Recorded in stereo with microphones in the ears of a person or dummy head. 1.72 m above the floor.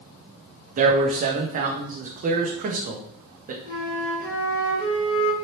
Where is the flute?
75° left (ahead or behind), 2 m.